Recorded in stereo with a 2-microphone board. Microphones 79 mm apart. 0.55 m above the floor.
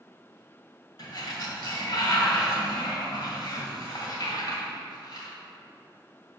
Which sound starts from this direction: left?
A sliding door, at 1.0 s.